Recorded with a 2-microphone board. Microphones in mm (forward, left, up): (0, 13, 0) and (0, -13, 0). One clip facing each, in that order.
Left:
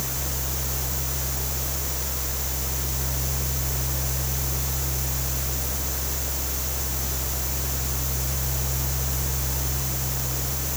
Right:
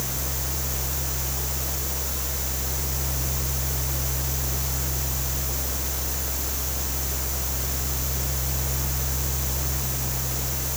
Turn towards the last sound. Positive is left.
No sound to turn to.